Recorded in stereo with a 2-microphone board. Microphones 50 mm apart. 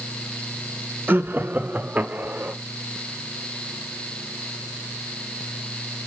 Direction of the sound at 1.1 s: 40° right (ahead or behind).